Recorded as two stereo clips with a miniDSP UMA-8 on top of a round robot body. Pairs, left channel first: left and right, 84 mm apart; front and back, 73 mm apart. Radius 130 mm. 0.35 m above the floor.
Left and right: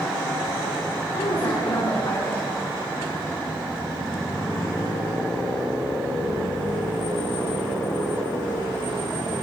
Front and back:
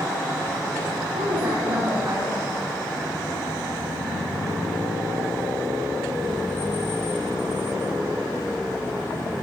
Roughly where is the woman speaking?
Behind left.